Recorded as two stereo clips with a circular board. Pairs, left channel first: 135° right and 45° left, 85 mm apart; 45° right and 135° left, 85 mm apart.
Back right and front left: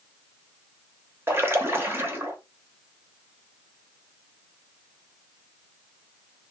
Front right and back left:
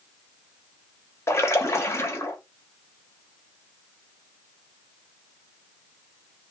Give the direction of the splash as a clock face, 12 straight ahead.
12 o'clock.